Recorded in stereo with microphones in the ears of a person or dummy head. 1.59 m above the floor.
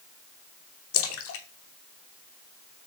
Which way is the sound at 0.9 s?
75° left (ahead or behind).